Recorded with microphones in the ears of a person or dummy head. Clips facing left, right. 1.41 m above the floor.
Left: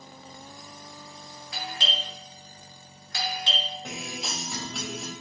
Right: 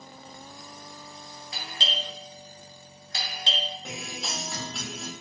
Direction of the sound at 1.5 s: 20° right (ahead or behind).